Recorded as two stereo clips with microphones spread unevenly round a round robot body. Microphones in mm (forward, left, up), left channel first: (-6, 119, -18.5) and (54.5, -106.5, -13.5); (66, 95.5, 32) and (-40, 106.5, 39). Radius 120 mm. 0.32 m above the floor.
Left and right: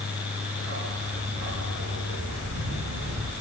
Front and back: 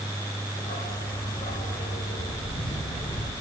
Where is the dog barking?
45° right, 6.5 m; by 3.3 s 30° right, 4.5 m.